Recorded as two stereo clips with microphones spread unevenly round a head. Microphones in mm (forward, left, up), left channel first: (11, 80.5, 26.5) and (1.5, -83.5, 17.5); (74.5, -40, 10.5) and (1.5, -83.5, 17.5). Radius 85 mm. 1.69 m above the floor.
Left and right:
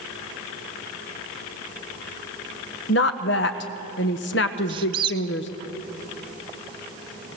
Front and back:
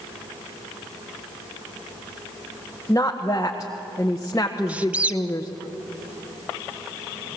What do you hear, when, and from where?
2.9 s a woman speaking: 105° left, 1.3 m
4.7 s a squeak: 115° right, 0.6 m